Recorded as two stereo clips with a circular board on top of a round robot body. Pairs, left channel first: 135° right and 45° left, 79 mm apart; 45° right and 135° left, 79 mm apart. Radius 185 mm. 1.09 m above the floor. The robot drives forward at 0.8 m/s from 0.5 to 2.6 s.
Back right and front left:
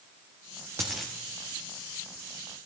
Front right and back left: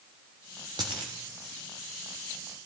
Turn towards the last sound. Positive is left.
turn(degrees=170)